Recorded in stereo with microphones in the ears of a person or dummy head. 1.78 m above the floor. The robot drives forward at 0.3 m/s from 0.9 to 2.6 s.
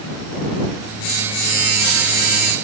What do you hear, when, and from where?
Only background noise.